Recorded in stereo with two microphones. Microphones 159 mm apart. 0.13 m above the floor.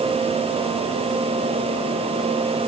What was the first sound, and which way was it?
Only background noise.